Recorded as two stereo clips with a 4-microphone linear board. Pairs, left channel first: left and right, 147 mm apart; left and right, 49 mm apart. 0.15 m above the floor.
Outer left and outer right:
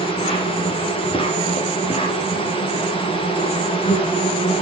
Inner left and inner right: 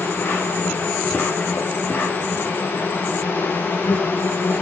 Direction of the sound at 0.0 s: 35° left (ahead or behind).